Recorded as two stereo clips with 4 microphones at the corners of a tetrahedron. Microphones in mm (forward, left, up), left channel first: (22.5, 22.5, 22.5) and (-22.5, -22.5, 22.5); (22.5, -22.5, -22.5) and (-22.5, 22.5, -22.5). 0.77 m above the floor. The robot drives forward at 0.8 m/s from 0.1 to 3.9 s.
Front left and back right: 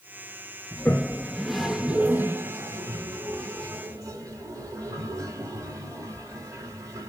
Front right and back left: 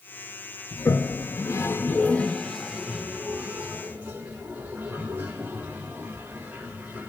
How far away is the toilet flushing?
About 1.4 m.